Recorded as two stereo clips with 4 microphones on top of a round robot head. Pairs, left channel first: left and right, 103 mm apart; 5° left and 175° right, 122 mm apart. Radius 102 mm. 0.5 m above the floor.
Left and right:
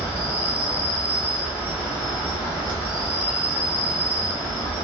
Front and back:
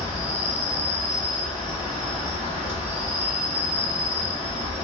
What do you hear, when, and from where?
0.0 s an insect: 20° right, 1.2 m